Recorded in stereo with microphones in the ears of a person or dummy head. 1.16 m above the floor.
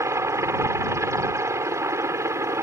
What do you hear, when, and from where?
0.0 s a helicopter: 15° right (ahead or behind)